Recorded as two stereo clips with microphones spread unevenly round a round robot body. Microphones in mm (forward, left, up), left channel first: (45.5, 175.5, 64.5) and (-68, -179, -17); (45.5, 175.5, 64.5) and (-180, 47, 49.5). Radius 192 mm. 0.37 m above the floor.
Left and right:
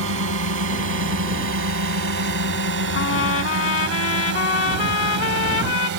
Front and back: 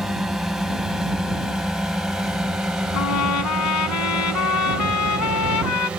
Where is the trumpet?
15° left.